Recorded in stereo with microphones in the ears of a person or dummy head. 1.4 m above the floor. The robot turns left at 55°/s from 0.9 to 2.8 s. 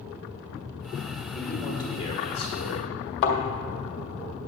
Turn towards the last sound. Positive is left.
turn(degrees=60)  # may be behind; listen again after turning